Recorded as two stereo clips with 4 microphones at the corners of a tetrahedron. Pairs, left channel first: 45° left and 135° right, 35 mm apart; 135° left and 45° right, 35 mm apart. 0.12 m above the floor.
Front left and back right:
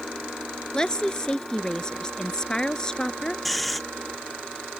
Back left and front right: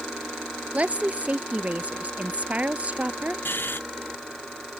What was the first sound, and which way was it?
A woman speaking, 20° right.